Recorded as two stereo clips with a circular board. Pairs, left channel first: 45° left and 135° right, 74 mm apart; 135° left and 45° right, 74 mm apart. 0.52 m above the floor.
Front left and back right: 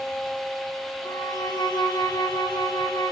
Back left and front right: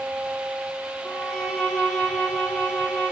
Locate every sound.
1.0 s a violin: 55° left, 4.5 m